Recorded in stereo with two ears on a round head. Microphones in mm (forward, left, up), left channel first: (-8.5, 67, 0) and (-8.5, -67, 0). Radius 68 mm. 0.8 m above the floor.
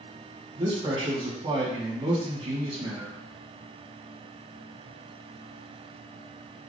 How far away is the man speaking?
About 1.6 m.